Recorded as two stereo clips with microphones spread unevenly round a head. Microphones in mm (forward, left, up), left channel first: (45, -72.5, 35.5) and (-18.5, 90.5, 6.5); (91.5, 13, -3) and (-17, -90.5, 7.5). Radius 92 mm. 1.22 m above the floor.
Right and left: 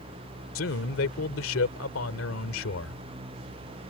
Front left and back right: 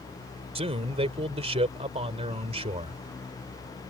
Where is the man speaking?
90° right.